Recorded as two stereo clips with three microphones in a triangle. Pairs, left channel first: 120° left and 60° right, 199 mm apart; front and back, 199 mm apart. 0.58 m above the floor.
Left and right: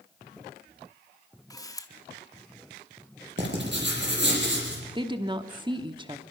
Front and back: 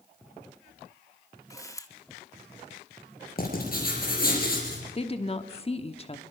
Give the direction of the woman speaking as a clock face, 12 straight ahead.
1 o'clock.